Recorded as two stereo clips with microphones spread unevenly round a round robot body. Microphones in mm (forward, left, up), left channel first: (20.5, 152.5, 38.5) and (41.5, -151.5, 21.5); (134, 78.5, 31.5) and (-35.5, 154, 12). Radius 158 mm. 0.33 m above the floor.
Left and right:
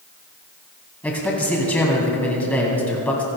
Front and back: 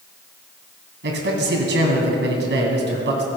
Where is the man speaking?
Straight behind, 2.5 m.